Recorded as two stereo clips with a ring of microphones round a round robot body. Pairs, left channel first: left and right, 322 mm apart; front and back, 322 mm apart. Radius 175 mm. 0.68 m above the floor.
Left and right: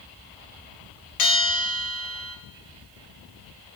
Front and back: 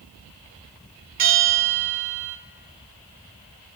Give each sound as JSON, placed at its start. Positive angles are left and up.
{"t": 1.2, "sound": "a bell", "azimuth_deg": 110, "distance_m": 0.9}